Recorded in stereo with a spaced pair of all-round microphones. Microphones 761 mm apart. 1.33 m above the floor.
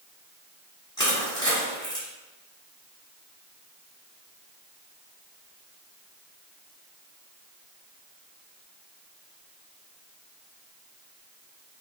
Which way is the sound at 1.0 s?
5° left (ahead or behind).